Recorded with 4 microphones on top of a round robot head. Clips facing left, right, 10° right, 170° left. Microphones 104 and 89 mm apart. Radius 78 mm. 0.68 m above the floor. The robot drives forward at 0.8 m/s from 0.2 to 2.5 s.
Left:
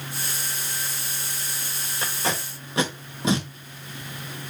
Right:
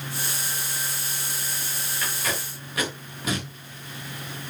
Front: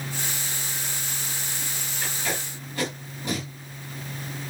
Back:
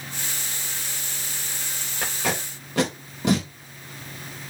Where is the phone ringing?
No phone ringing in this recording.